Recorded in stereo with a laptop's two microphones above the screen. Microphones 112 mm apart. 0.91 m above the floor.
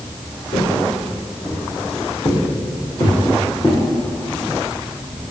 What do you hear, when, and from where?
0.5 s footsteps: 60° left (ahead or behind), 3.5 m; by 3.8 s 25° left (ahead or behind), 3.5 m